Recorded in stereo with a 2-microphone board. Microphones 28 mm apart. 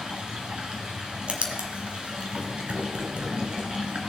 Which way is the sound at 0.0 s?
35° right (ahead or behind).